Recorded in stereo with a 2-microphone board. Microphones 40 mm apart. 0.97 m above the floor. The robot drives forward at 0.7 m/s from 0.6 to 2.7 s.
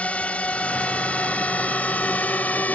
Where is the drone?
35° left (ahead or behind); by 2.7 s 45° left (ahead or behind).